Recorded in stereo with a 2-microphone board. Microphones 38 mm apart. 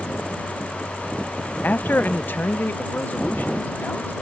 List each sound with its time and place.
1.6 s a man speaking: 50° left (ahead or behind); by 4.1 s 60° left (ahead or behind)